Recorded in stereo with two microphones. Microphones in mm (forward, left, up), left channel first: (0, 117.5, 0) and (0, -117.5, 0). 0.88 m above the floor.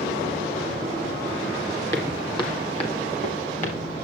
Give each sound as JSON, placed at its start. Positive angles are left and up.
{"t": 1.9, "sound": "footsteps", "side_deg": 10, "distance_m": 1.9}